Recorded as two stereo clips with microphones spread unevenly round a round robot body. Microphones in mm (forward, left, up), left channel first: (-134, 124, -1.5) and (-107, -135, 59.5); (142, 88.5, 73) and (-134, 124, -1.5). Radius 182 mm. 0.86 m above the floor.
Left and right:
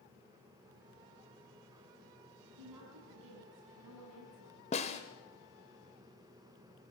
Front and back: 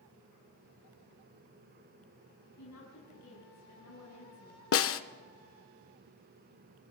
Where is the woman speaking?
55° right, 7 m.